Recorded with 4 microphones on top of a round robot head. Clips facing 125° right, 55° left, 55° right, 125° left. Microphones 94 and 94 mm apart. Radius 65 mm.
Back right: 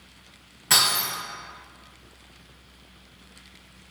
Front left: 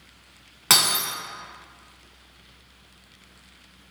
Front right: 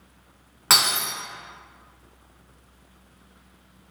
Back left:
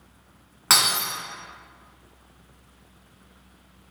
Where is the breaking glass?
35° left, 1.8 m.